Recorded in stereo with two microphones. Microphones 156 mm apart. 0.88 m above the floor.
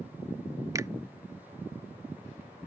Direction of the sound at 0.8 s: 20° right (ahead or behind).